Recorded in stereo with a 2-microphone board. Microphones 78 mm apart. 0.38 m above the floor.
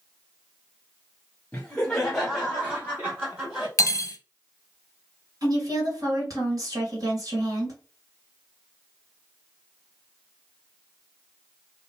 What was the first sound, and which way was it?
Laughter, 15° left (ahead or behind).